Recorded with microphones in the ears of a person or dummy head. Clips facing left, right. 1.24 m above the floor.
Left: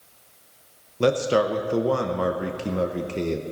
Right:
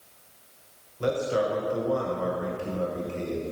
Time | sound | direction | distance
1.0 | a man speaking | 75° left (ahead or behind) | 0.9 m